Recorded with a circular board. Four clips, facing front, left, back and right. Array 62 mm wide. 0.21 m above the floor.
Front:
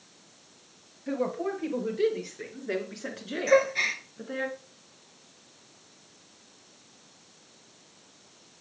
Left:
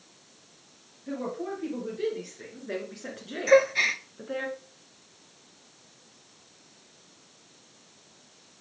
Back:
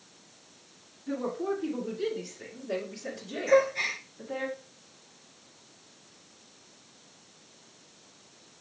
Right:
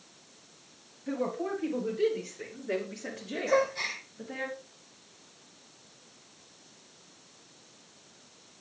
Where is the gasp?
70° left, 0.7 m.